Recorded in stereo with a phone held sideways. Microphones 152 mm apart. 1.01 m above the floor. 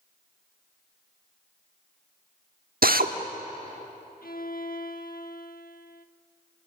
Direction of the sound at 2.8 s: 75° right (ahead or behind).